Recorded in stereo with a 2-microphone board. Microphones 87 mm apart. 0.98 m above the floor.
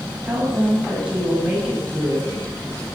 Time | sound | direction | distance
0.2 | a woman speaking | 10° right (ahead or behind) | 6.5 m